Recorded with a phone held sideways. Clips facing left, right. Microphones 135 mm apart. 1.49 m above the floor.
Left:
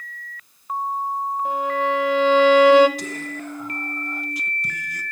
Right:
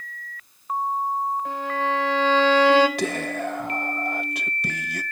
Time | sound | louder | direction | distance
1.4 | a violin | left 4 dB | 20° left (ahead or behind) | 3.5 m
3.0 | whispering | right 5 dB | 70° right (ahead or behind) | 1.4 m